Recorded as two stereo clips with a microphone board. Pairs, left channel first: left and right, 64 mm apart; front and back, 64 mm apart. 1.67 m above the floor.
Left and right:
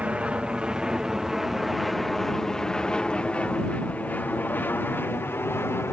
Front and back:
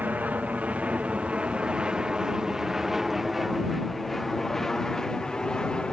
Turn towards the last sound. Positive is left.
turn(degrees=70)